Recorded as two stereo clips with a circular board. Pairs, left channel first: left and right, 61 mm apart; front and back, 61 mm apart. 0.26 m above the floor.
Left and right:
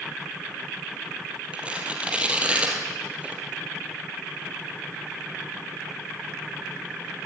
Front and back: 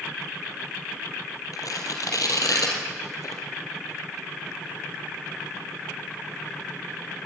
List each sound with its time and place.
1.5 s tearing paper: 20° right, 4 m